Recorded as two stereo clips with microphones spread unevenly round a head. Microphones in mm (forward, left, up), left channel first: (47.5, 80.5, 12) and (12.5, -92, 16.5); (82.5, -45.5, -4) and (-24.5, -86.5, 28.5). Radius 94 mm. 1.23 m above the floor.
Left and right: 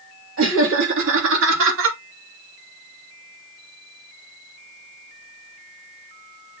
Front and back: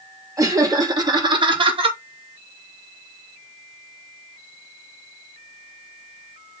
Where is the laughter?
95° right, 3 m; by 2.0 s 115° right, 2.5 m.